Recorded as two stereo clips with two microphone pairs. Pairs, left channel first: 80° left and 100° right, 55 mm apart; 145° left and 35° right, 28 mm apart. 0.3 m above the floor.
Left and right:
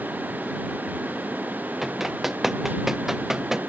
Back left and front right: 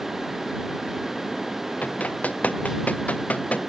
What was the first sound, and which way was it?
Running footsteps, 175° left.